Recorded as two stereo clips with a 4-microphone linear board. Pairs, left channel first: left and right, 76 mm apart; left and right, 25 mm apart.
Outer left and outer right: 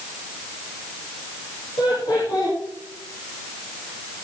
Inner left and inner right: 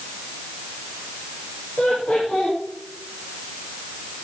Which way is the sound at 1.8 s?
70° left (ahead or behind).